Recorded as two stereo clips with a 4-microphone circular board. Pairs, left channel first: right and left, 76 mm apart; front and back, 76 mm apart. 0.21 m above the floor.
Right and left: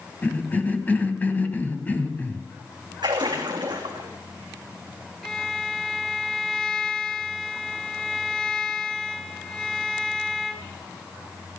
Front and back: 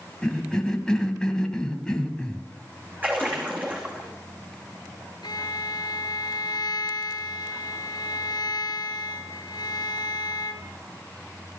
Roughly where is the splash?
Behind left.